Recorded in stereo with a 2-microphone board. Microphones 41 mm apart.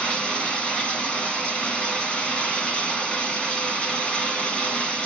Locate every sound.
0.0 s running water: 25° left (ahead or behind), 1.6 m